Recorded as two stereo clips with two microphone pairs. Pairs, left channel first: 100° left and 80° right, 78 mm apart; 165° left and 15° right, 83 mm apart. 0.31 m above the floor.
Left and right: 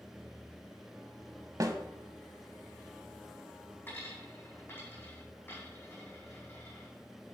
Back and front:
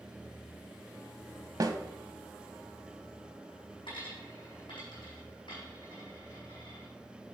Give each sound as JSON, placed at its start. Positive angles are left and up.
{"t": 1.6, "sound": "a snare drum", "azimuth_deg": -45, "distance_m": 0.9}
{"t": 3.9, "sound": "a dropped coin", "azimuth_deg": 160, "distance_m": 4.5}